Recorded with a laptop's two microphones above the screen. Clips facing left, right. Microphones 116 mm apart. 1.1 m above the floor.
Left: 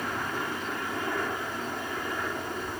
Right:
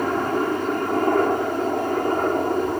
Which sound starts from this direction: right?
A helicopter, at 0.0 s.